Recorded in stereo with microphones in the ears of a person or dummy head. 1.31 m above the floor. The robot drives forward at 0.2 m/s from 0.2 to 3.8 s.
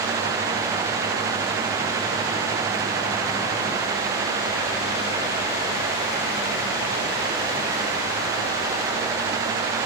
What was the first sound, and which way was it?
Only background noise.